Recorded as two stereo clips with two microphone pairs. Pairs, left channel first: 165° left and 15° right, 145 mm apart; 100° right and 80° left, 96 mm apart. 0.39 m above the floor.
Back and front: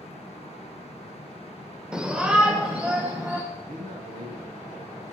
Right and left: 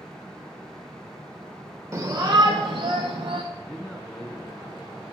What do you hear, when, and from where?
1.9 s a shout: 60° left, 0.8 m; by 3.4 s 65° left, 2 m
3.5 s a man speaking: 15° right, 5 m